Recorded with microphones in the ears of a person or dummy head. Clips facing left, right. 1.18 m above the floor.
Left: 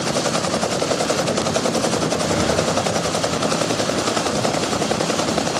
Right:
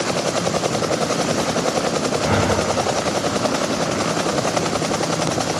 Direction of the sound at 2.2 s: 80° right.